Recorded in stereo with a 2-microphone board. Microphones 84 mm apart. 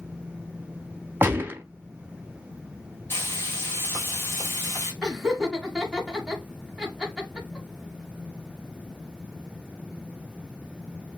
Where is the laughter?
5° right (ahead or behind), 1.5 m.